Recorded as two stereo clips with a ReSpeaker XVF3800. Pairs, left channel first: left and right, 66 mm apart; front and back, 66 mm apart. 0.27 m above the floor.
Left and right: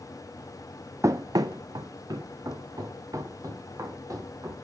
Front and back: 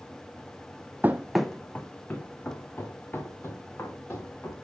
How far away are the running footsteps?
About 0.5 m.